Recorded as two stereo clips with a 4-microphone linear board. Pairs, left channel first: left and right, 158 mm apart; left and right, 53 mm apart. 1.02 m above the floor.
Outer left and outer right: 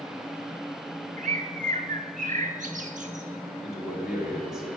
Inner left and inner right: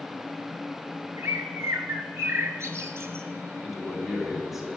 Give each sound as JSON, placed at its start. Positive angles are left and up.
{"t": 1.2, "sound": "a bird", "side_deg": -55, "distance_m": 1.0}
{"t": 3.6, "sound": "a man speaking", "side_deg": -5, "distance_m": 2.5}